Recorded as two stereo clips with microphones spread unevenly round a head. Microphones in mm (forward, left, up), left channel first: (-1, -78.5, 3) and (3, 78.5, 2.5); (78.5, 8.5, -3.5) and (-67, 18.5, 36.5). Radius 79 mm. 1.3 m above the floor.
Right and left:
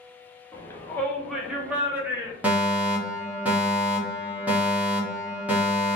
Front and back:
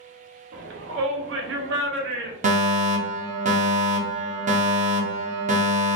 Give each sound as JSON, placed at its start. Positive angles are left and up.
{"t": 0.5, "sound": "a shout", "azimuth_deg": -160, "distance_m": 0.8}
{"t": 2.4, "sound": "a fire alarm", "azimuth_deg": 165, "distance_m": 1.1}